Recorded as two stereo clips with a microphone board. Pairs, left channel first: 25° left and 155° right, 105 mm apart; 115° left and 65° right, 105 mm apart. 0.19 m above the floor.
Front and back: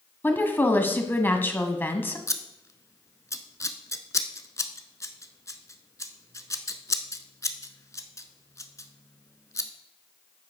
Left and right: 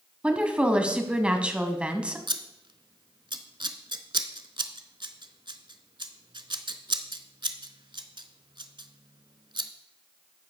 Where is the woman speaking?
5° right, 1.1 m.